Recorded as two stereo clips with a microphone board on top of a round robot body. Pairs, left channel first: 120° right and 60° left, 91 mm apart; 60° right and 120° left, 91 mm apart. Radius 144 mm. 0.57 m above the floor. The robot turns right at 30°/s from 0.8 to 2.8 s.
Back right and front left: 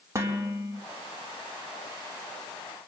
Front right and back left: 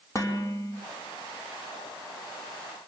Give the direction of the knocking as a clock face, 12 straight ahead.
I don't hear knocking.